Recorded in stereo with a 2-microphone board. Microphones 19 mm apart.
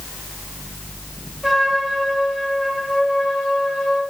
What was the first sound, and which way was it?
A trumpet, 30° right (ahead or behind).